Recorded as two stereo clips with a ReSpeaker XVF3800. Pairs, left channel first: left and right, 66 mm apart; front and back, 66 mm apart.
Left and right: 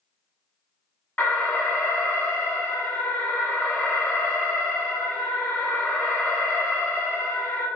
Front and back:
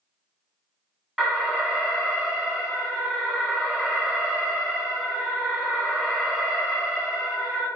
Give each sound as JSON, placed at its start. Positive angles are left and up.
{"t": 1.2, "sound": "an alarm", "azimuth_deg": 90, "distance_m": 1.2}